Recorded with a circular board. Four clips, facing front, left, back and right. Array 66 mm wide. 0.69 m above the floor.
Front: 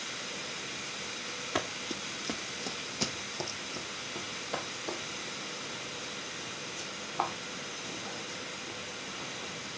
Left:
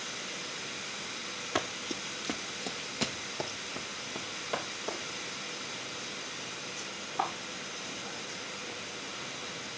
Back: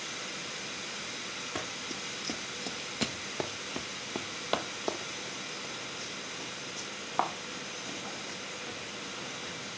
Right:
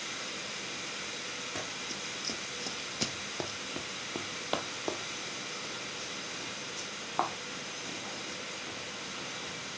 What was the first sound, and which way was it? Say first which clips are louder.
Running footsteps: left 5 dB, front 6 dB; 55° left.